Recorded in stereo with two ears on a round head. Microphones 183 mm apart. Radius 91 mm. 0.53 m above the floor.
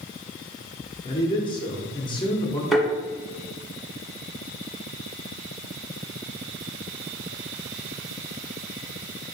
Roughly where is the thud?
Centre.